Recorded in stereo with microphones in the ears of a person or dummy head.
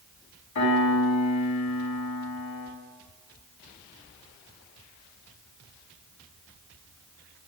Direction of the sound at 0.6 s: 70° left (ahead or behind).